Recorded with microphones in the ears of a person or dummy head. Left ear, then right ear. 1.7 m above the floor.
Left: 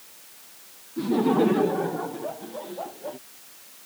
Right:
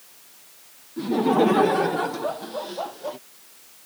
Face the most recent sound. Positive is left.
turn(degrees=-40)  # may be behind; listen again after turning